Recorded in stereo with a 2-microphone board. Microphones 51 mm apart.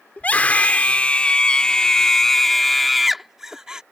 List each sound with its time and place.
0.2 s a scream: 30° left (ahead or behind); by 3.8 s 15° right (ahead or behind)